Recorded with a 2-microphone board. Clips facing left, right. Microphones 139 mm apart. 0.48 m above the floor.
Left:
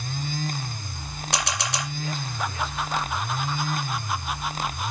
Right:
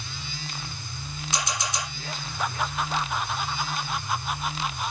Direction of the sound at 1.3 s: 70° left (ahead or behind).